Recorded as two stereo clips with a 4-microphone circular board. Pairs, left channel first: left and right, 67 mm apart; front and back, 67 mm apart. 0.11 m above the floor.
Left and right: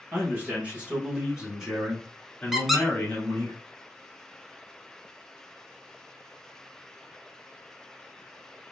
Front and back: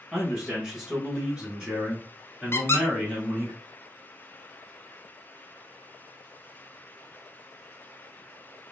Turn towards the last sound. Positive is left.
turn(degrees=-5)